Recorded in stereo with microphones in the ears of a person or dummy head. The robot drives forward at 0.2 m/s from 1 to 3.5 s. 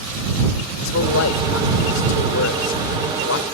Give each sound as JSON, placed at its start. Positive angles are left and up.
{"t": 0.8, "sound": "a man speaking", "side_deg": 75}